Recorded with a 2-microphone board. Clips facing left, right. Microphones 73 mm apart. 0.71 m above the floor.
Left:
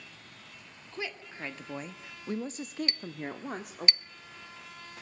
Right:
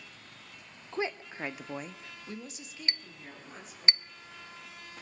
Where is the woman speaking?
30° right (ahead or behind), 1.6 m; by 3.9 s 65° left (ahead or behind), 2.0 m.